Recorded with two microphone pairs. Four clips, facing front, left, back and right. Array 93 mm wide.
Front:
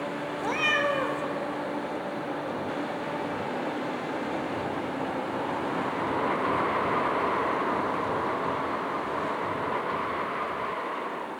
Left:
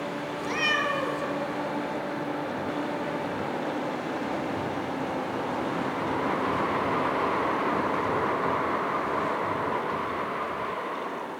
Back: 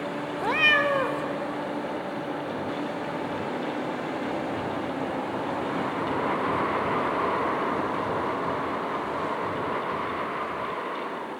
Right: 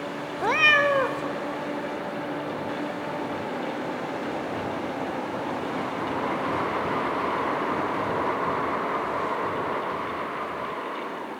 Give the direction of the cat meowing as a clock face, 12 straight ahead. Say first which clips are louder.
Right 7 dB, back 3 dB; 4 o'clock.